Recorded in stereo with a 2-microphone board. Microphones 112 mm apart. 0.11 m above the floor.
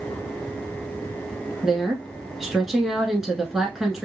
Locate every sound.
1.6 s a woman speaking: 5° right (ahead or behind), 1.1 m